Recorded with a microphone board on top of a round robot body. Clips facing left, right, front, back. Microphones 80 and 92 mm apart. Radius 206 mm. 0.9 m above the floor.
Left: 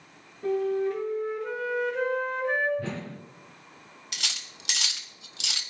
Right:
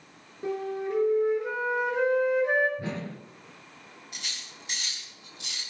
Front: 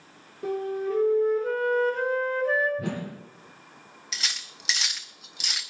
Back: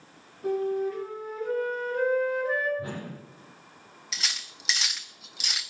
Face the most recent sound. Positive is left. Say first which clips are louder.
# left 5 dB, even
turn(degrees=90)